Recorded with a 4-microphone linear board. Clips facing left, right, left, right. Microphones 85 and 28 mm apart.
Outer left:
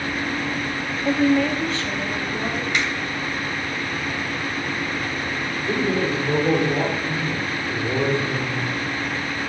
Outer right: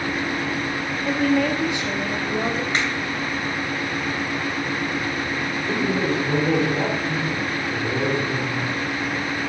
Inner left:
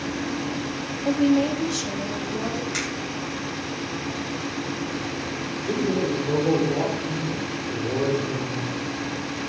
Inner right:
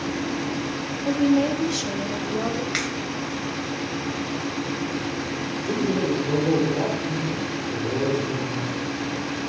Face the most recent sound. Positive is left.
turn(degrees=20)  # may be behind; listen again after turning